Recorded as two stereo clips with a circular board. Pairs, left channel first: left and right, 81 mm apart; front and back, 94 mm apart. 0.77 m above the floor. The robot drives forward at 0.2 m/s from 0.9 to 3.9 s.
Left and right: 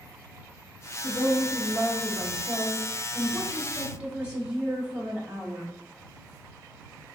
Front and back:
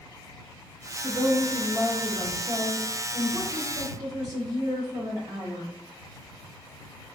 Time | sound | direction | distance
1.0 | a woman speaking | 115° right | 0.7 m